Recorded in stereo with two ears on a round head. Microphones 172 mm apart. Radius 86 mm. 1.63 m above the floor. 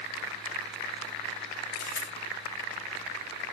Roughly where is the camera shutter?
Left.